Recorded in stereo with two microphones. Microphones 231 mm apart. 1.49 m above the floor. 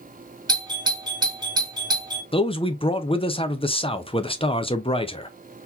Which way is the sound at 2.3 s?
25° left (ahead or behind).